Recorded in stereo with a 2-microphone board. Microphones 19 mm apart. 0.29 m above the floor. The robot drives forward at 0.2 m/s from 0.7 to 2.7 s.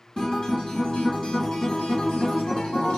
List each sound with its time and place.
0.2 s a guitar: 55° left (ahead or behind), 1.3 m; by 3.0 s 65° left (ahead or behind), 1.2 m